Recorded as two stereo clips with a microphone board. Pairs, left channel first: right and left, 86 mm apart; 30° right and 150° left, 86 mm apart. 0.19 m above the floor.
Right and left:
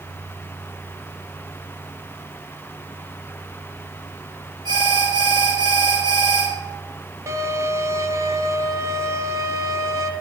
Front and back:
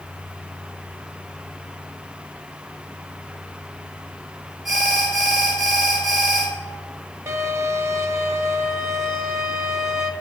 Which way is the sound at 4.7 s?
65° left.